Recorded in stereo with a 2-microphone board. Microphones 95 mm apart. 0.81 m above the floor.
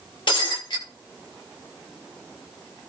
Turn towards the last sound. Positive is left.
turn(degrees=50)  # may be behind; listen again after turning